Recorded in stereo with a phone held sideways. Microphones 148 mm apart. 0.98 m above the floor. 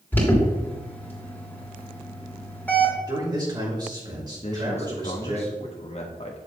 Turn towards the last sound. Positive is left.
turn(degrees=45)  # may be behind; listen again after turning